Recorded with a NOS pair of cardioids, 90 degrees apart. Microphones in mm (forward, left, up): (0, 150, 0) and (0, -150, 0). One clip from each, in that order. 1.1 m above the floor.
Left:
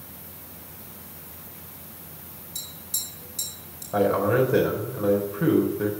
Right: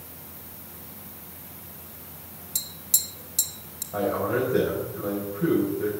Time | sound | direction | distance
2.5 | tapping | 60° right | 2.5 m
3.9 | a man speaking | 50° left | 4 m